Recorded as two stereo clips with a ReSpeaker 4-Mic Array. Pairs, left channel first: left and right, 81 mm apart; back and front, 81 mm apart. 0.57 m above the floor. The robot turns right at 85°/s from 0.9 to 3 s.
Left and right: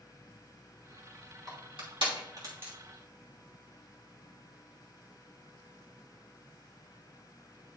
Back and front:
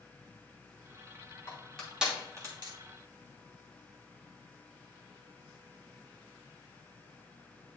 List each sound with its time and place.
1.5 s crushing: 125° right, 3 m; by 2.7 s 20° right, 3 m